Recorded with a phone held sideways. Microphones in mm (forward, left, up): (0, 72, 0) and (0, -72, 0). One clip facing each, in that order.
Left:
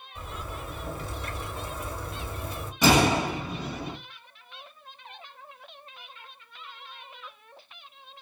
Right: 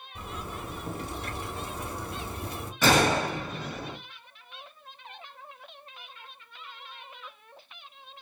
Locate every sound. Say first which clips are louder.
0.1 s a zipper: even; 70° right (ahead or behind), 2 m
2.8 s a gunshot: left 2 dB; 15° left (ahead or behind), 1.9 m